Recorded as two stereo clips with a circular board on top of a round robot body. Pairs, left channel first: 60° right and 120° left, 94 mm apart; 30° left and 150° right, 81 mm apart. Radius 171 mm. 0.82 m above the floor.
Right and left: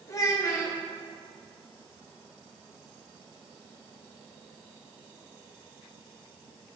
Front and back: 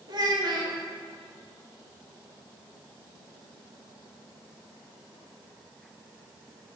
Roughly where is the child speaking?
Behind right.